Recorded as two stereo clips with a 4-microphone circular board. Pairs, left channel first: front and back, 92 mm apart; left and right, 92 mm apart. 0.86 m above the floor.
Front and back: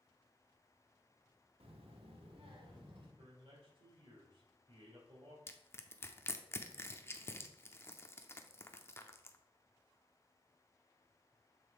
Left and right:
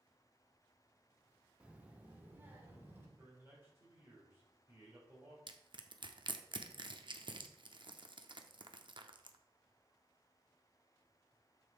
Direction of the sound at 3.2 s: 155° right.